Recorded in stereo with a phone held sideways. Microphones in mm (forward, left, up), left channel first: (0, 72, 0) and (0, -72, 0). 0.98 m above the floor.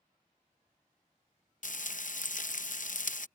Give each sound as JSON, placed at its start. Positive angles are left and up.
{"t": 1.6, "sound": "frying", "side_deg": 65}